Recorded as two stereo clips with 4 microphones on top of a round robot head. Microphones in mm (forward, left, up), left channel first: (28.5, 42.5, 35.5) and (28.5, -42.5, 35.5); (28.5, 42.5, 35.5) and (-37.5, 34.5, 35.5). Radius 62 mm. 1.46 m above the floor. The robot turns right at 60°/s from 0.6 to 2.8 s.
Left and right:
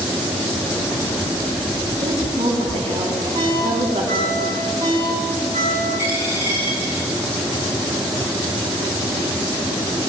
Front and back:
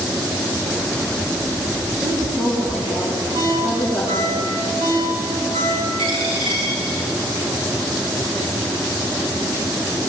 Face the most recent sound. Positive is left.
turn(degrees=-160)